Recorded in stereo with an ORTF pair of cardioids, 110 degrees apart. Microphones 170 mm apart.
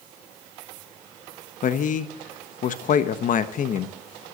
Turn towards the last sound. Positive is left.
turn(degrees=50)